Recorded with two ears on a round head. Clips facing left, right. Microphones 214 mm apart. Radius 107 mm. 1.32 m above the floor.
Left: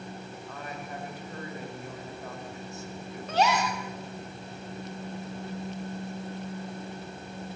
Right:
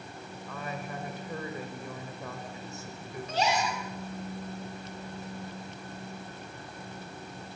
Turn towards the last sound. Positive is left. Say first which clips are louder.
# left 3 dB
turn(degrees=50)  # may be behind; listen again after turning